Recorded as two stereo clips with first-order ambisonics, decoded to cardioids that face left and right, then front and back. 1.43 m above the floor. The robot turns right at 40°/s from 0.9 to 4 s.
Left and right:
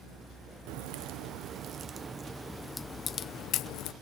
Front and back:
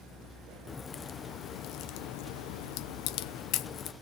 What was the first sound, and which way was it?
A crack, 65° right.